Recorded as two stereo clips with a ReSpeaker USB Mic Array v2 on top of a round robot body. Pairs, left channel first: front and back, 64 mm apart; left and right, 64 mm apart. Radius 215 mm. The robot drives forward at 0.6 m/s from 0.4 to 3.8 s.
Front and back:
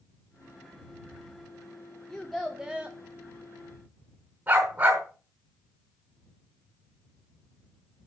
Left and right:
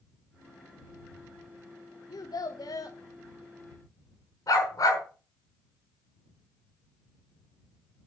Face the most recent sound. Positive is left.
turn(degrees=125)